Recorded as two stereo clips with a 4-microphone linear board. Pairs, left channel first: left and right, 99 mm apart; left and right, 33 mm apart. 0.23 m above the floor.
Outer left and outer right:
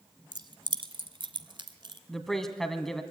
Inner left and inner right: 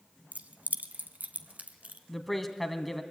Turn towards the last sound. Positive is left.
turn(degrees=5)  # may be behind; listen again after turning